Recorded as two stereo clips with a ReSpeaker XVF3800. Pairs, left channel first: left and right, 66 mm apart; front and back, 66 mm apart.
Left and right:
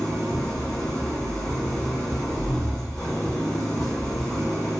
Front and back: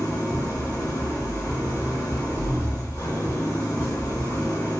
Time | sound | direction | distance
0.0 | an engine running | 20° left | 1.6 m